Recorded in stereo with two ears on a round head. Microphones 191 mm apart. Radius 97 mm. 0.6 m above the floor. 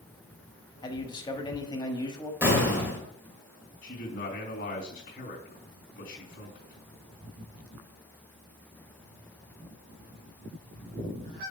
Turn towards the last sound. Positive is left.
turn(degrees=40)  # may be behind; listen again after turning